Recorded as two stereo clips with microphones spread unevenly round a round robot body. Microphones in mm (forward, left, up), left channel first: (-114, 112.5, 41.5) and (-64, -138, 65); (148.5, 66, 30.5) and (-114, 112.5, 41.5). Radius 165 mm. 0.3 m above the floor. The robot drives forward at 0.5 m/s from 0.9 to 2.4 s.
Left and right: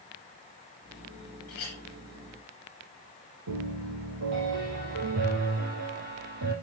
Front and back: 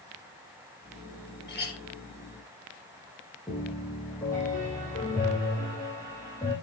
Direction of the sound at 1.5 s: 40° left.